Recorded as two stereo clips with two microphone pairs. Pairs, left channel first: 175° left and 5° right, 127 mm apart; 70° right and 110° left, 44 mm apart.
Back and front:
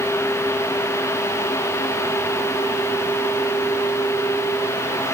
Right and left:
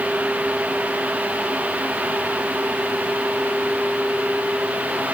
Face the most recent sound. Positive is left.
No sound to turn to.